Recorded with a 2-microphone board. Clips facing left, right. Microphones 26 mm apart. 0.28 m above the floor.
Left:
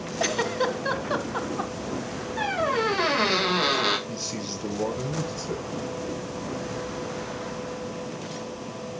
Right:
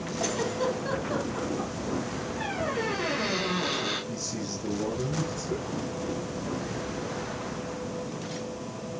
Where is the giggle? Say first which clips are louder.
Left 4 dB; 40° left (ahead or behind), 1.4 m.